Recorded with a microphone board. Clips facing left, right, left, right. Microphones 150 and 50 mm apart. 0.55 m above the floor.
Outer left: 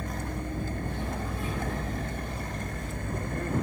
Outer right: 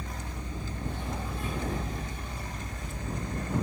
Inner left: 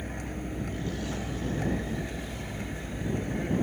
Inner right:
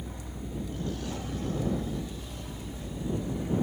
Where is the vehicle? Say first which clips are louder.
Outer left 6 dB, inner left 5 dB; 55° left (ahead or behind).